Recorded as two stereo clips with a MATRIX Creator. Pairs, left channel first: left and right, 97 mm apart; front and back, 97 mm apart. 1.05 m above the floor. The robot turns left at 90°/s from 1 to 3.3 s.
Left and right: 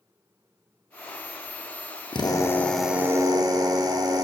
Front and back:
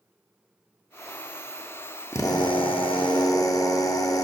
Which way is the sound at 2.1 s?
60° left.